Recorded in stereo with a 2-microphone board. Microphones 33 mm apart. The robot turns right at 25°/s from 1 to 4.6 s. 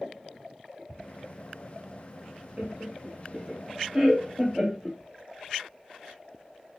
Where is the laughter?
45° right (ahead or behind), 0.7 m; by 5.0 s 20° right (ahead or behind), 0.7 m.